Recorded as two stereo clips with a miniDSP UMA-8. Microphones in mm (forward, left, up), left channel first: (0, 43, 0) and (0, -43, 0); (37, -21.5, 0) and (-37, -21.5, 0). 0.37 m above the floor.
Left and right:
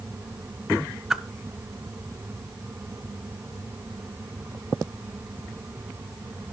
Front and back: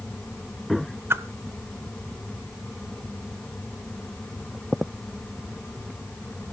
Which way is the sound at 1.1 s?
170° right.